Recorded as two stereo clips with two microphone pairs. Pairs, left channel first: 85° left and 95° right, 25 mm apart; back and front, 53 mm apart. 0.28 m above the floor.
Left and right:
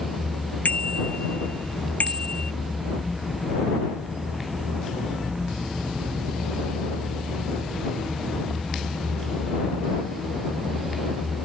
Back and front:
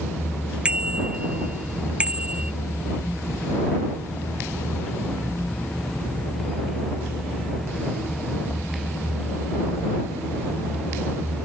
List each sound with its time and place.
0.7 s a bicycle bell: 70° left